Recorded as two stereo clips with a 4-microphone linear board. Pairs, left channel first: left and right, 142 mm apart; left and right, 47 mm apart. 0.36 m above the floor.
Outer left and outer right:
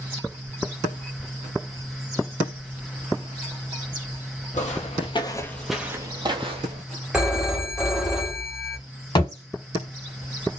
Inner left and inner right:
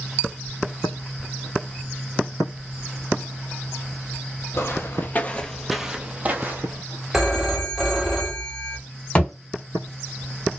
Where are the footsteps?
60° left (ahead or behind), 0.8 m; by 6.8 s 50° right (ahead or behind), 0.9 m.